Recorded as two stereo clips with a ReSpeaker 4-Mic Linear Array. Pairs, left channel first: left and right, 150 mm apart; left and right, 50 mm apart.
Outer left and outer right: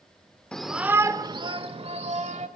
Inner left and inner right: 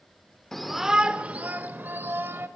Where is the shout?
5° left (ahead or behind), 0.8 m; by 2.5 s 55° right (ahead or behind), 1.5 m.